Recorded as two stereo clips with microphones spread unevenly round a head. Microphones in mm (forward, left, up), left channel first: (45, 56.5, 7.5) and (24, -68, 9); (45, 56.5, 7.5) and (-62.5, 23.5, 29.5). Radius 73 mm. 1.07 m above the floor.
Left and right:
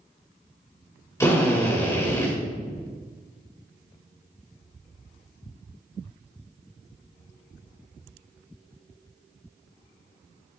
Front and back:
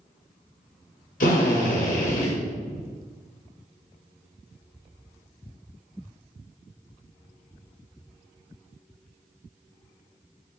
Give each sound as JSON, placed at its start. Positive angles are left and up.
{"t": 1.2, "sound": "a drill", "azimuth_deg": 10, "distance_m": 2.0}